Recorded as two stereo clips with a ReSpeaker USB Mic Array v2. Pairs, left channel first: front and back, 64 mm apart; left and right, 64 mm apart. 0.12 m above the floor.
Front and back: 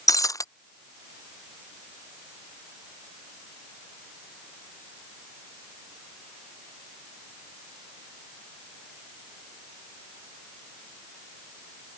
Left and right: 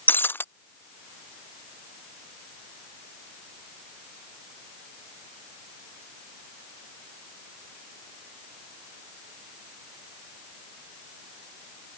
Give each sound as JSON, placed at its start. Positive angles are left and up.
{"t": 0.1, "sound": "breaking glass", "azimuth_deg": 30}